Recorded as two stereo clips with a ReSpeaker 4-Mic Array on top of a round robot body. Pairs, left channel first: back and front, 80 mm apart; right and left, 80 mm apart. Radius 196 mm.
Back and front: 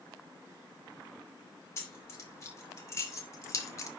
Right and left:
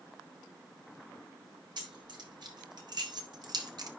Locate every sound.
1.8 s keys jangling: 125° left, 3 m; by 3.9 s 130° left, 1.4 m